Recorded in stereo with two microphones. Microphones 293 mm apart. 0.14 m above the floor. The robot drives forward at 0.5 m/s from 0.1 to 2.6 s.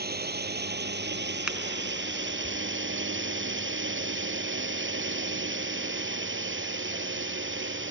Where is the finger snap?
5° right (ahead or behind).